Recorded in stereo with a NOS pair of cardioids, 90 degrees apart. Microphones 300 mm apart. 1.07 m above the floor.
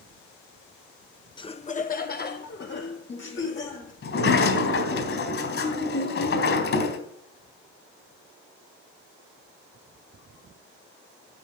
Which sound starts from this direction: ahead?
Laughter, at 1.4 s.